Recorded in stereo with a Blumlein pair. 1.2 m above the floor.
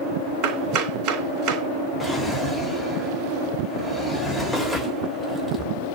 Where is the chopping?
35° right, 3.5 m.